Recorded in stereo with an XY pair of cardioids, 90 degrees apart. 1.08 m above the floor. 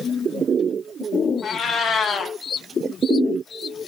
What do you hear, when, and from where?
1.4 s a cat meowing: 60° left, 0.9 m